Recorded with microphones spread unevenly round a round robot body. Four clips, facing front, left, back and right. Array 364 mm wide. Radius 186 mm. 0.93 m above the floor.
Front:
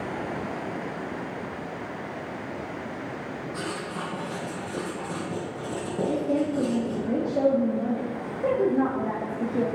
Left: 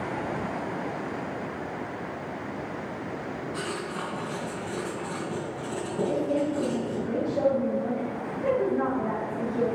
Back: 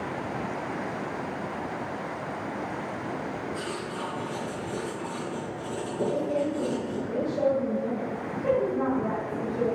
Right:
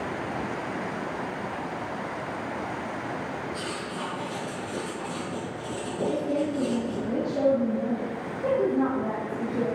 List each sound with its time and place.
3.5 s writing: 15° left, 3.5 m
6.1 s a woman speaking: 10° right, 2 m